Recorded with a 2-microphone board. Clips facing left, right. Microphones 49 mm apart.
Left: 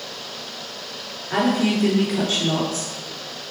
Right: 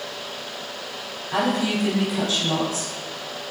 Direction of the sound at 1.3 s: 35° left (ahead or behind).